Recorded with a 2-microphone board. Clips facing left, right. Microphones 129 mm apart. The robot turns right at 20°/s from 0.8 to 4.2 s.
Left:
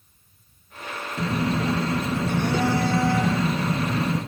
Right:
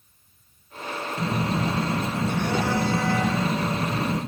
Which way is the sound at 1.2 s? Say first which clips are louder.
Left 2 dB; 35° left.